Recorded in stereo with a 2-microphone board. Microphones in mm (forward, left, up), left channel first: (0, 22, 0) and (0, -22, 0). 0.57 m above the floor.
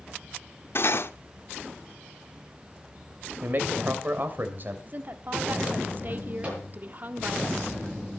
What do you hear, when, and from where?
0.8 s cutlery clinking: 55° left (ahead or behind), 0.9 m
3.4 s a man speaking: 45° right (ahead or behind), 3 m
4.9 s a woman speaking: 40° right (ahead or behind), 1.5 m
6.4 s a microwave: 30° right (ahead or behind), 8 m